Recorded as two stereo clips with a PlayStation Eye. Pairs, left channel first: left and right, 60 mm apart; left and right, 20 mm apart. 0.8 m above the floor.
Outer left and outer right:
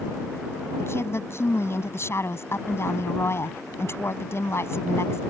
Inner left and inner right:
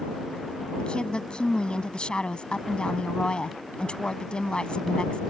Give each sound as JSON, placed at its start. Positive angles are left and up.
{"t": 0.8, "sound": "a woman speaking", "side_deg": 45}